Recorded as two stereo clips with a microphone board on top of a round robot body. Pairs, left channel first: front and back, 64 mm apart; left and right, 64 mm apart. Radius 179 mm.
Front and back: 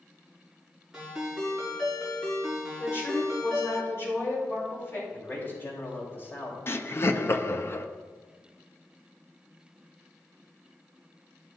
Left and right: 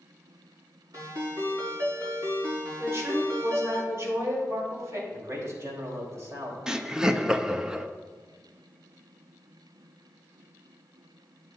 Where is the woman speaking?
50° right, 4 m.